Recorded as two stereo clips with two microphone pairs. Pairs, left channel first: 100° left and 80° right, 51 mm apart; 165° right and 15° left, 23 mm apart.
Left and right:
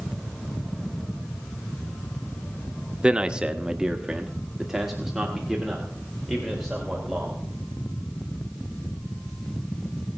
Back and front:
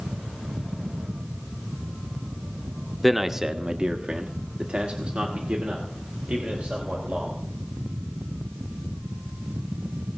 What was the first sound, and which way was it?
A man speaking, 75° right.